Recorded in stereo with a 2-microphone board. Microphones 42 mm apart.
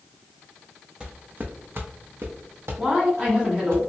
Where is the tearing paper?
No tearing paper in this recording.